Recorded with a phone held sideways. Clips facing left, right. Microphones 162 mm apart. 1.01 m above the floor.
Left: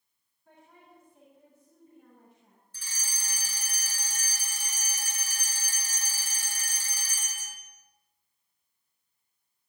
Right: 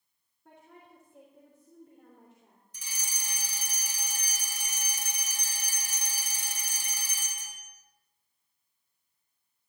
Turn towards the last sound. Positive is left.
turn(degrees=-15)  # may be behind; listen again after turning